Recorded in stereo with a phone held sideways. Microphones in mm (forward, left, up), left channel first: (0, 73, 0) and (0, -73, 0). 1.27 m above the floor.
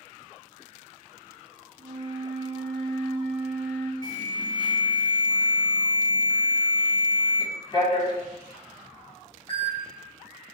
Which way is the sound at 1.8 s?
50° right (ahead or behind).